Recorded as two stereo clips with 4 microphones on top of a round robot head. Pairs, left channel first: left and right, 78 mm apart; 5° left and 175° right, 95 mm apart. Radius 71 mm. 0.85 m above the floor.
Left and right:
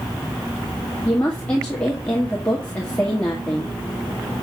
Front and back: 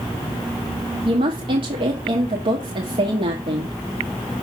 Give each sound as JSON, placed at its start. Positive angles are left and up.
{"t": 1.1, "sound": "a woman speaking", "azimuth_deg": 170, "distance_m": 2.0}